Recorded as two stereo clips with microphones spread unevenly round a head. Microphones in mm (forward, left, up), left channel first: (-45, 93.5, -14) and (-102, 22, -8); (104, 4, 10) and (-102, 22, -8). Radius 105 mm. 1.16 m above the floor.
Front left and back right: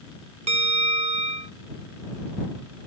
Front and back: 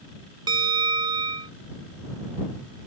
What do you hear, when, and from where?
0.5 s a bell: 115° right